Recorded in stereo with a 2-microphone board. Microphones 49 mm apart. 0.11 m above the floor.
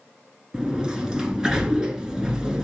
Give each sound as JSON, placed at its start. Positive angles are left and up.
{"t": 0.5, "sound": "a sliding door", "side_deg": -15, "distance_m": 1.2}